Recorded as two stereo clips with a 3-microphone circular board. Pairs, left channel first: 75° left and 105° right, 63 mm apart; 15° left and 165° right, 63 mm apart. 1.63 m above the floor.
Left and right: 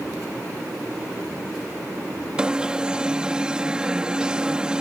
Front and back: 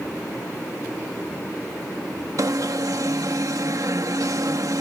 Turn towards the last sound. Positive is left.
turn(degrees=180)